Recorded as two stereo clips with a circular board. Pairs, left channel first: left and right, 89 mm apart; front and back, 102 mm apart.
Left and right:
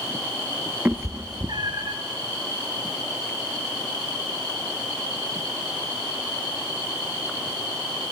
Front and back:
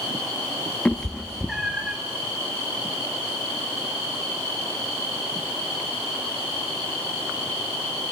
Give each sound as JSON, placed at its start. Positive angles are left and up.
{"t": 0.8, "sound": "a cat meowing", "azimuth_deg": -60, "distance_m": 0.6}